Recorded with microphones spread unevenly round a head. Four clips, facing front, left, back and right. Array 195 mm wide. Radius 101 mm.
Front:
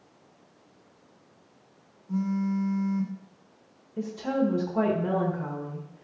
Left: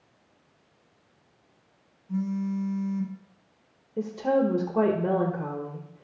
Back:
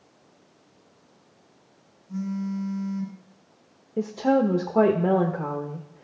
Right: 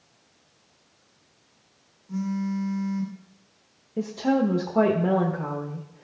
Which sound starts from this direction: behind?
A woman speaking, at 4.0 s.